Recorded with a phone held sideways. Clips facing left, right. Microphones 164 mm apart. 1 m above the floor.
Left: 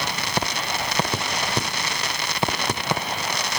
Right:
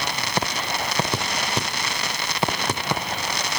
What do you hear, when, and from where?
Only background noise.